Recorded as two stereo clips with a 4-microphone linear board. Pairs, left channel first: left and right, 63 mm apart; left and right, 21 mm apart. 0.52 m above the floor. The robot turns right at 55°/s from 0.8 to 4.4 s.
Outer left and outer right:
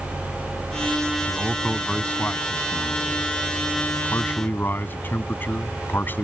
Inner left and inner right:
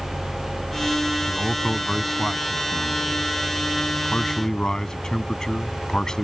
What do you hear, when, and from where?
1.3 s a man speaking: 25° right; by 6.2 s 145° left